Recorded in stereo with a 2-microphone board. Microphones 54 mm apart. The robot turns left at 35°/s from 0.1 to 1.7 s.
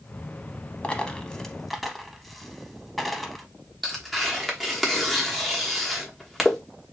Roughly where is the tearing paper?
Centre.